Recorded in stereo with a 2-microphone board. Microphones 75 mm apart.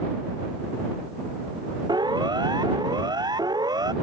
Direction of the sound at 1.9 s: 75° right (ahead or behind).